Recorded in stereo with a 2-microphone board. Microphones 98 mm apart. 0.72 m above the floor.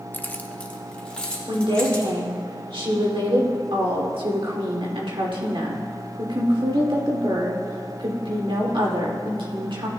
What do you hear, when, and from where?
0.1 s keys jangling: 25° left (ahead or behind), 0.5 m; by 2.1 s 10° left (ahead or behind), 3 m
1.5 s a woman speaking: 70° right (ahead or behind), 2.5 m